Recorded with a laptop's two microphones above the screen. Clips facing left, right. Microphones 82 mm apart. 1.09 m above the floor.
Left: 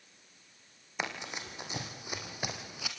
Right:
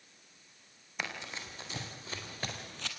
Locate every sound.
1.0 s running footsteps: 20° left (ahead or behind), 3 m; by 2.9 s 10° left (ahead or behind), 1.8 m